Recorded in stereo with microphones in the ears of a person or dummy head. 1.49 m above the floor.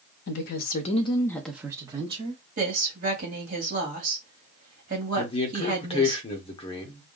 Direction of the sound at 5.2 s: 30° left (ahead or behind).